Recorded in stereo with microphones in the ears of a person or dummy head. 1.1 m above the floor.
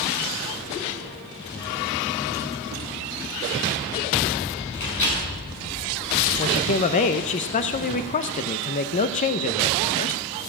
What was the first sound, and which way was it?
A microwave, 65° left (ahead or behind).